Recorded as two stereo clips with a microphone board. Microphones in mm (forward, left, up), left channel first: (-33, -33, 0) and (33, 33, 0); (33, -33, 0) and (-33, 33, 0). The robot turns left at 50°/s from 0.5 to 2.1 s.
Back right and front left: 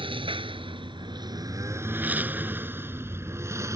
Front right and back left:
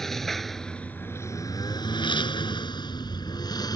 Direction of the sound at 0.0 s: 40° left.